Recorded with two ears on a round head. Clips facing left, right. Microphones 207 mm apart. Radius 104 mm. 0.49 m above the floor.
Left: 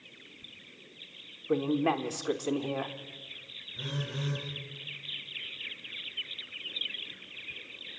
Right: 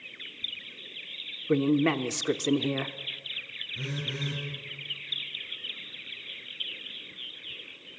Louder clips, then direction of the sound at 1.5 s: Right 4 dB; 30° right (ahead or behind).